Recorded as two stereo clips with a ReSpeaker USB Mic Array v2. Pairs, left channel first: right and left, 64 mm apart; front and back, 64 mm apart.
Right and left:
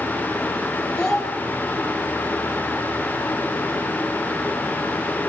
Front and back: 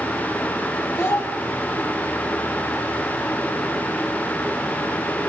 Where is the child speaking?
15° right, 1.5 m.